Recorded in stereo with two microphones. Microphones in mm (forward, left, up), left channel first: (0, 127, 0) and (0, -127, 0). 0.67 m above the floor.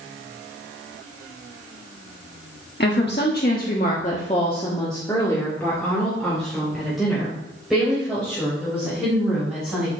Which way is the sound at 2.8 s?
45° left (ahead or behind).